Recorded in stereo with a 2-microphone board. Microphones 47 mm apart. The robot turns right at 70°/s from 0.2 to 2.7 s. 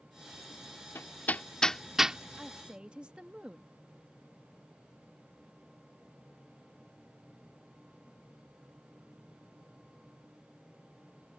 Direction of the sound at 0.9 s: 60° left (ahead or behind).